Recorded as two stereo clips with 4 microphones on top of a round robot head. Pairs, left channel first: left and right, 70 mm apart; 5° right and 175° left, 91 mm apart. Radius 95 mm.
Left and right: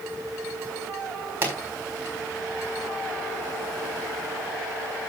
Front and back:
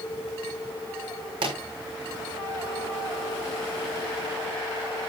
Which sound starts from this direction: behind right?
A pop, at 1.4 s.